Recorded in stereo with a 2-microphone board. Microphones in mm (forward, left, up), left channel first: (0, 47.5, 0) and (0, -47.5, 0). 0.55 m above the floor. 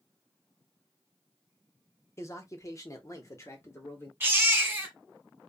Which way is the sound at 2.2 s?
30° left (ahead or behind).